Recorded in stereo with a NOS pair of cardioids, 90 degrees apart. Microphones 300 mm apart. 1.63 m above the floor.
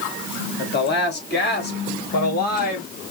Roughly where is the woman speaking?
Ahead left.